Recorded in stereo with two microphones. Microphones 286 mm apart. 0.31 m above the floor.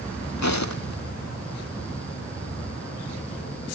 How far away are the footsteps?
About 0.7 m.